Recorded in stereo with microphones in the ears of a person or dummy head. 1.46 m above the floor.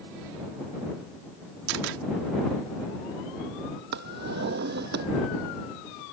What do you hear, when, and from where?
1.7 s a camera shutter: 70° right (ahead or behind)
3.9 s a drawer: 55° right (ahead or behind)